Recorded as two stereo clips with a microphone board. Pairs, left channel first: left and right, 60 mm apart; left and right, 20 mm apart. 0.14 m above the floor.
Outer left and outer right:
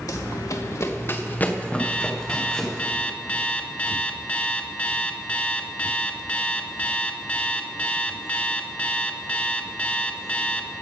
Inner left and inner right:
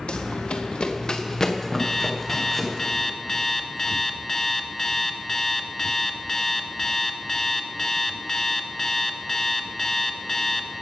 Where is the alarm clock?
25° left (ahead or behind), 0.8 m.